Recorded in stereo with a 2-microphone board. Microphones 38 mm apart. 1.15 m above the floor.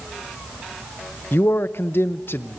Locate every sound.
1.3 s a man speaking: 75° left (ahead or behind), 0.8 m